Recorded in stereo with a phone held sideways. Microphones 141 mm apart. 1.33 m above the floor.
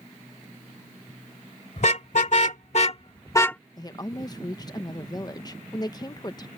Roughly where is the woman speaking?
Left.